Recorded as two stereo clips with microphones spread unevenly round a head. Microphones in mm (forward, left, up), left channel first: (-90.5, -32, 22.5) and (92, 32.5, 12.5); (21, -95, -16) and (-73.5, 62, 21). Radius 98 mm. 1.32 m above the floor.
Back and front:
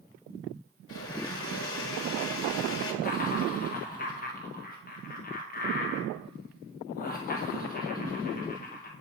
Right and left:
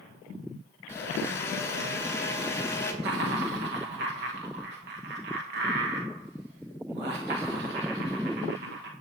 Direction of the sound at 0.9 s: 140° right.